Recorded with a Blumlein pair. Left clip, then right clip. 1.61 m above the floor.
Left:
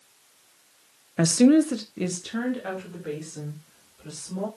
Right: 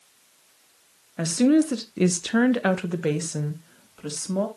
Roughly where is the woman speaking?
Ahead.